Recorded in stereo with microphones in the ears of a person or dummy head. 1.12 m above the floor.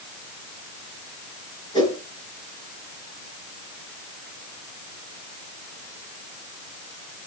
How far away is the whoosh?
About 4.5 m.